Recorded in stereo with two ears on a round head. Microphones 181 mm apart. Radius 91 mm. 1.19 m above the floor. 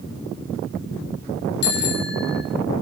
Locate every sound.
1.6 s a bicycle bell: 60° left (ahead or behind), 3 m